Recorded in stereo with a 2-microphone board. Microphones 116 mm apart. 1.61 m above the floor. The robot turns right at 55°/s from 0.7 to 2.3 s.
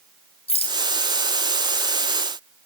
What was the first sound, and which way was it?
A rattle, 55° left (ahead or behind).